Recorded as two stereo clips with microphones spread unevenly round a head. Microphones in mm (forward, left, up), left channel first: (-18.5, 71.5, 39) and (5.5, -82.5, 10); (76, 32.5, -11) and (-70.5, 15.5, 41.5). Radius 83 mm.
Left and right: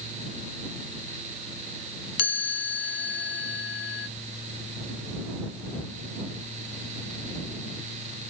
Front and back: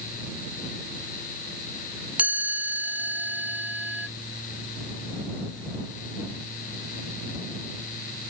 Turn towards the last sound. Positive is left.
turn(degrees=105)